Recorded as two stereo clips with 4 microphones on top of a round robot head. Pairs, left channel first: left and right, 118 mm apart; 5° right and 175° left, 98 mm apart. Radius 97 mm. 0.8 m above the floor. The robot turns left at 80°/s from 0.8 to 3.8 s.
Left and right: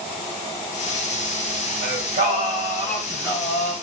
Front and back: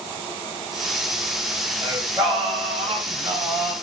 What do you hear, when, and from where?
1.8 s singing: 85° right, 3 m; by 3.7 s 120° left, 3 m